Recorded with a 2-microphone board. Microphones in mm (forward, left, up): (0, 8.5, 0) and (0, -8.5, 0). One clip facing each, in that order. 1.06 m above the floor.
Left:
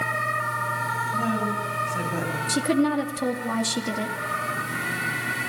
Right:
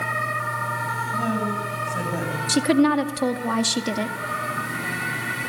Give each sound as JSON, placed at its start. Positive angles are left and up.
{"t": 1.1, "sound": "a woman speaking", "side_deg": -10, "distance_m": 8.0}
{"t": 2.5, "sound": "a woman speaking", "side_deg": -25, "distance_m": 2.0}